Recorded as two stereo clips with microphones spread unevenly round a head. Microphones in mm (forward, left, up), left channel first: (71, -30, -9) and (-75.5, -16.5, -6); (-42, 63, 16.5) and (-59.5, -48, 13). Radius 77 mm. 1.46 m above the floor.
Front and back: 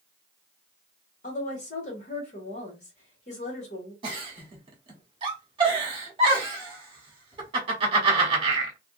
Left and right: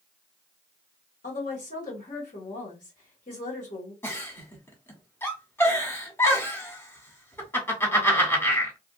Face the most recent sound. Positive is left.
turn(degrees=140)